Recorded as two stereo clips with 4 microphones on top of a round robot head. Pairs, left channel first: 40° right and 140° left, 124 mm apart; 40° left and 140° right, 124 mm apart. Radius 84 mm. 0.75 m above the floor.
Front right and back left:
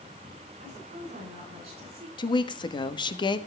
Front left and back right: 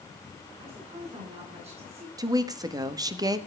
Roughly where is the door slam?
No door slam in this recording.